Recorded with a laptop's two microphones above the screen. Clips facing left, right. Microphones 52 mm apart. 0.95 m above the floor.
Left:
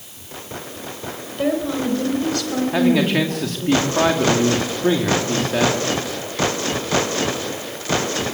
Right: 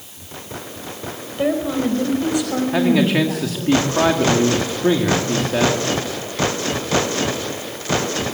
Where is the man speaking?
Centre (ahead or behind), 2.5 m.